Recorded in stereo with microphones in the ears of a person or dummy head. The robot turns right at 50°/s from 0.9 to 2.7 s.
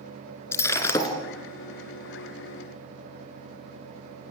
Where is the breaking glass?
15° left (ahead or behind), 3 m; by 1.1 s 25° left (ahead or behind), 3 m.